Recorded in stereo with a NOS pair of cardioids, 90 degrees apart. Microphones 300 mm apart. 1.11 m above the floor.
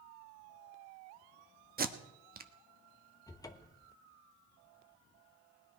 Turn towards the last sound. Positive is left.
turn(degrees=10)